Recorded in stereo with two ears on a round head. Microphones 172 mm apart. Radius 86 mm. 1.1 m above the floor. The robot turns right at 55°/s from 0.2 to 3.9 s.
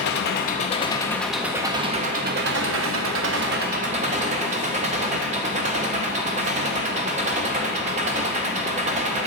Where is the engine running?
120° left, 0.8 m; by 9.3 s 40° right, 0.8 m.